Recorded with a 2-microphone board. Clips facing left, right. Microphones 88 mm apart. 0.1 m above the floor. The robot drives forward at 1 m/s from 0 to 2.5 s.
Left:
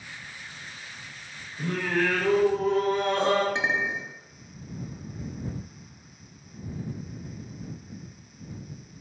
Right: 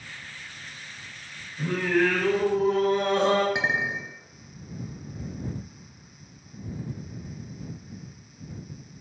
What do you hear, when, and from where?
1.6 s singing: 15° right (ahead or behind), 1.5 m
3.5 s a clink: 10° right (ahead or behind), 0.6 m